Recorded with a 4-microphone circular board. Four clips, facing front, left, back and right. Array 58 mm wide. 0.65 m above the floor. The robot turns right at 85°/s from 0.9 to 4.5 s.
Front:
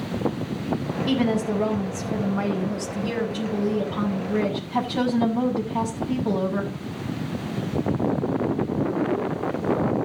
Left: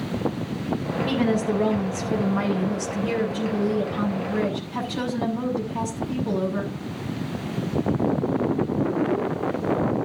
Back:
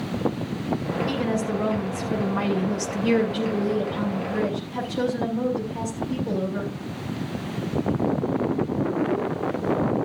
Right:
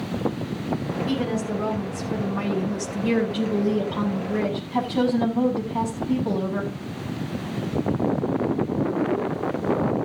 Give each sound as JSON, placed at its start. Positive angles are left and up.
{"t": 1.1, "sound": "a woman speaking", "azimuth_deg": 25, "distance_m": 6.5}